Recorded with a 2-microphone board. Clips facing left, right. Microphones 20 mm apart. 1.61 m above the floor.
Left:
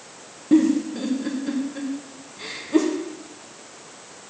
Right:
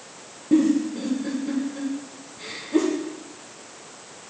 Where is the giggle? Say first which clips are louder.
Left 1 dB; 25° left (ahead or behind), 1.1 m.